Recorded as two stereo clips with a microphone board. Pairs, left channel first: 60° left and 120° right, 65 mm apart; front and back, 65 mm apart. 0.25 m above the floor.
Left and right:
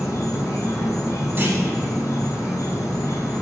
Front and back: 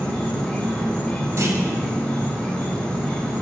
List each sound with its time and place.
0.0 s an insect: 65° left, 1.2 m
1.4 s a clunk: 165° right, 0.9 m